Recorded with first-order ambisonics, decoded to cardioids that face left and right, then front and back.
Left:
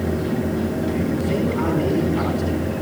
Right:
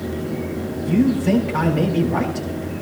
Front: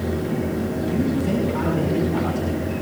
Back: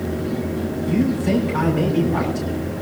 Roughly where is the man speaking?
Right.